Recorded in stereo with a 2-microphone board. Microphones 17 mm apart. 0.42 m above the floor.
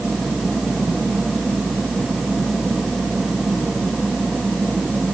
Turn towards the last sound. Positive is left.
No sound to turn to.